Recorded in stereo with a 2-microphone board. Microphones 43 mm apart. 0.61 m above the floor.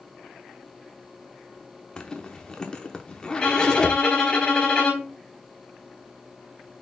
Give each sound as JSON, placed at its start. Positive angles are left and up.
{"t": 2.0, "sound": "a zipper", "side_deg": 20, "distance_m": 1.0}
{"t": 3.4, "sound": "a violin", "side_deg": 20, "distance_m": 4.0}